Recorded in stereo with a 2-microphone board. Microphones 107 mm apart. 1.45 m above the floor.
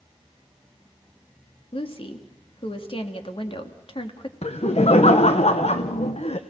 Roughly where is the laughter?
Left.